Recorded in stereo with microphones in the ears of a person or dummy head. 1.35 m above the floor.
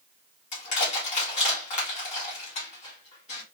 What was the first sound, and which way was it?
Crushing, 40° left (ahead or behind).